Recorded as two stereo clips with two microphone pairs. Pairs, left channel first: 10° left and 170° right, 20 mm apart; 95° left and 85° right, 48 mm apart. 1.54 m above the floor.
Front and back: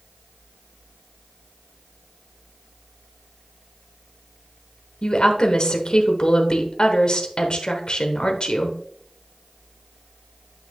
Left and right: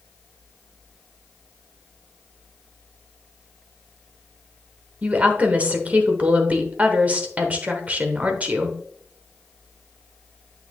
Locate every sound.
5.0 s a woman speaking: 25° right, 1.1 m